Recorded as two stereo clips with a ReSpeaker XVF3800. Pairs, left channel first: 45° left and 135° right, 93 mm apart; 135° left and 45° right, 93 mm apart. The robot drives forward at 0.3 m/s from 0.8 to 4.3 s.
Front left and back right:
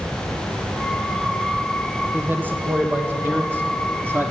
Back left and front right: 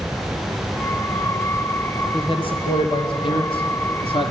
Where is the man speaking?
155° left, 3 m; by 4.3 s 160° left, 3.5 m.